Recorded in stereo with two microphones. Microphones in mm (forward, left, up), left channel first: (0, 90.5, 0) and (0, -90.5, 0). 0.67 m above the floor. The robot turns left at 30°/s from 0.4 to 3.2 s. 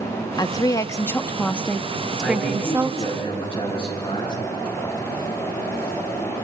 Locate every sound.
0.4 s a woman speaking: 45° left, 0.6 m; by 3.1 s 35° right, 0.6 m
2.2 s a man speaking: 5° left (ahead or behind), 7 m; by 4.4 s 35° left (ahead or behind), 7 m